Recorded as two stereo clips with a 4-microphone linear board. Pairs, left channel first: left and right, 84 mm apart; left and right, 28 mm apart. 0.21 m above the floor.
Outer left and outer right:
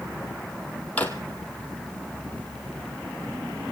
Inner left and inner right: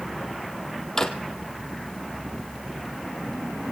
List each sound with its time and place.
1.0 s a drawer: 20° left (ahead or behind), 1.7 m